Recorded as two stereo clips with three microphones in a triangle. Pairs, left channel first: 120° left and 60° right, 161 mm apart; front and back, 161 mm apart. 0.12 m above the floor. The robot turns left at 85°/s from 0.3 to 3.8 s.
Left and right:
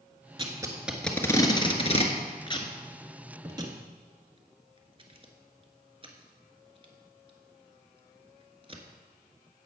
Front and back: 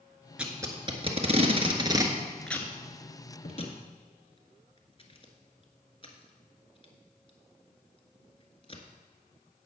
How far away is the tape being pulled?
About 1.5 m.